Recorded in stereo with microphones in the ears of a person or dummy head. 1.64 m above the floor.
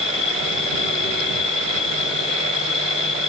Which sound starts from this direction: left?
An insect, at 0.0 s.